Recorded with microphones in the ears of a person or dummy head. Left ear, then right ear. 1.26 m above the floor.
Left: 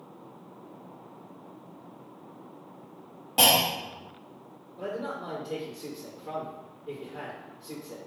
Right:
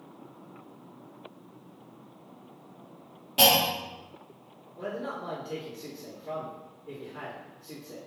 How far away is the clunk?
About 0.8 m.